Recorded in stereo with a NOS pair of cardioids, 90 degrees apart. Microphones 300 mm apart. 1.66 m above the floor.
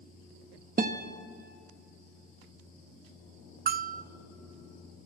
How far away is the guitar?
About 2.0 m.